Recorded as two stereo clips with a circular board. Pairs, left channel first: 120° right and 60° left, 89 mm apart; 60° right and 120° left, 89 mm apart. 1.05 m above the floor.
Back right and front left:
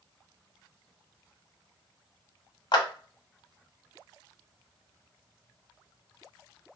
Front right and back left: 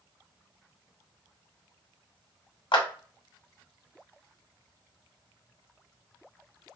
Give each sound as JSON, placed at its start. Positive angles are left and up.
{"t": 2.7, "sound": "a clap", "azimuth_deg": -90, "distance_m": 0.6}